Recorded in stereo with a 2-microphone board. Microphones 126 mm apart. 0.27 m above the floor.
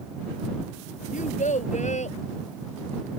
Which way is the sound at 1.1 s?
75° left (ahead or behind).